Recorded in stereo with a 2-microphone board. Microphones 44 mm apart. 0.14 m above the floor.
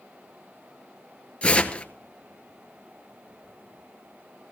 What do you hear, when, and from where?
1.4 s tearing paper: 30° left (ahead or behind), 0.9 m